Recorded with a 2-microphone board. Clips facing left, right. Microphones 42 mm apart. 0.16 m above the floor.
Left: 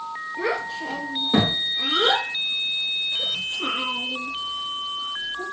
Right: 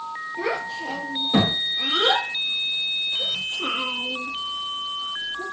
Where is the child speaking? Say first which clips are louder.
Left 1 dB; 30° left (ahead or behind), 1.8 m.